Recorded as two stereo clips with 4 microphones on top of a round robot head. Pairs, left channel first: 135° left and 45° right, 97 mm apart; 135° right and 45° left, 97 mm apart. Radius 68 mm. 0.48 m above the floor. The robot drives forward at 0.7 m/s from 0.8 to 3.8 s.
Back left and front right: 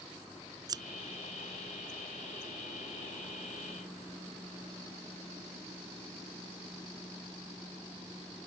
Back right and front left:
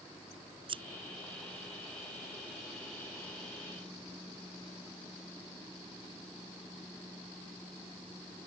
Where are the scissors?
10° left.